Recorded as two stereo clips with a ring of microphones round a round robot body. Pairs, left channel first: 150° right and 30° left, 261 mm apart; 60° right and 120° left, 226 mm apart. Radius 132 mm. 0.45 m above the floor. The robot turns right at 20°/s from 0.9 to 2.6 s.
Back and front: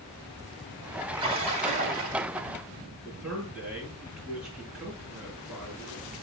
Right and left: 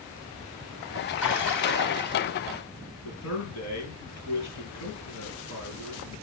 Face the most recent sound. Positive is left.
turn(degrees=-60)